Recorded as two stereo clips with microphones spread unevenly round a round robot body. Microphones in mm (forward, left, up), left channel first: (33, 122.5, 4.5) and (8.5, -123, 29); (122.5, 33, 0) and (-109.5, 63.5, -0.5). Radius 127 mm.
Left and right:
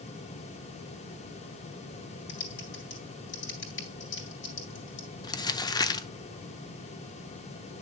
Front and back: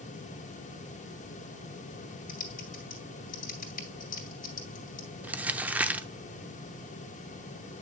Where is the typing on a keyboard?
45° left, 2.5 m.